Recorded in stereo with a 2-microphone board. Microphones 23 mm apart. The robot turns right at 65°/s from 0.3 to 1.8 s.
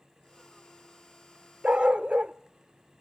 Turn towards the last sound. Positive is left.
turn(degrees=-70)  # may be behind; listen again after turning